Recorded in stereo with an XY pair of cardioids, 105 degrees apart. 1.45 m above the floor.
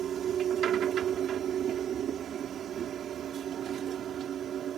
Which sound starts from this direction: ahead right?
A machine running, at 0.0 s.